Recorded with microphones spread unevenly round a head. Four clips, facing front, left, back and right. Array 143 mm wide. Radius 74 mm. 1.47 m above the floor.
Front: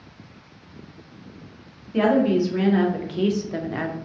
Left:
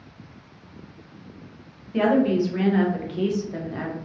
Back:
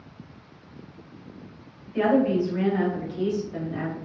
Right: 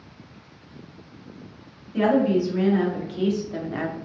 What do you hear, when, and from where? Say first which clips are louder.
1.9 s a woman speaking: even, front 2 dB; 40° left, 1.5 m; by 4.0 s 35° right, 0.5 m